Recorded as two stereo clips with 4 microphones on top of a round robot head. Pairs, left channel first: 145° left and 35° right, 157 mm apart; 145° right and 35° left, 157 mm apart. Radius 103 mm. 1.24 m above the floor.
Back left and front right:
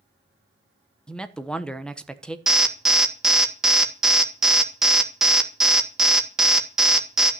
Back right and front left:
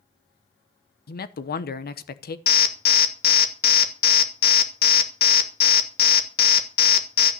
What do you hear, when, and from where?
1.1 s a man speaking: 130° right, 1.1 m
2.5 s an alarm: 125° right, 1.7 m